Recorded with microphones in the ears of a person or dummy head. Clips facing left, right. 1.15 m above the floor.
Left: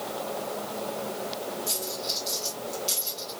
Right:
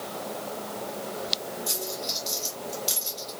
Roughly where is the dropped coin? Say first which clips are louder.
Even; centre.